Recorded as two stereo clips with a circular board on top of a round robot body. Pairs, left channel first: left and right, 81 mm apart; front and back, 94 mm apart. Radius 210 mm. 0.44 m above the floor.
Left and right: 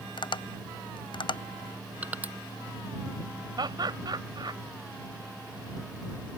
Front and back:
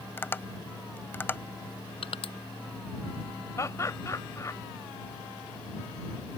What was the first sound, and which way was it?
Tapping, 70° left.